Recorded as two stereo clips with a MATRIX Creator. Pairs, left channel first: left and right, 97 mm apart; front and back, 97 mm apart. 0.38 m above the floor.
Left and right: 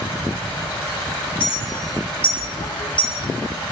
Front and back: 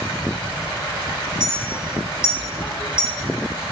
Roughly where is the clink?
Ahead left.